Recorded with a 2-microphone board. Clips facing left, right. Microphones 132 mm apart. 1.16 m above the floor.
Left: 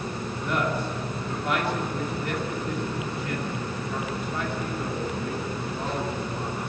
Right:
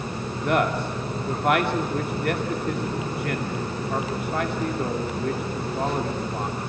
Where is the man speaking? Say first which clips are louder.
Right 5 dB; 65° right (ahead or behind), 2.5 m.